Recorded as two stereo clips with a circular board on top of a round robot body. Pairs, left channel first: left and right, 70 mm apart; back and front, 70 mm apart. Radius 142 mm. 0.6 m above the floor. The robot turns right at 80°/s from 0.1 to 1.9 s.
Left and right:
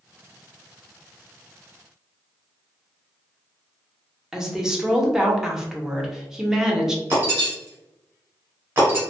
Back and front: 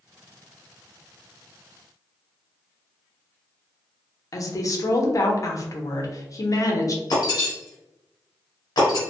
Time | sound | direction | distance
4.3 | a woman speaking | 170° right | 0.8 m
7.1 | breaking glass | 150° right | 0.7 m